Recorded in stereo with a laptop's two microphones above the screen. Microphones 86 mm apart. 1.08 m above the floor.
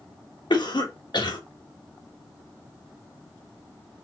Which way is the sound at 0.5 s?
65° left (ahead or behind).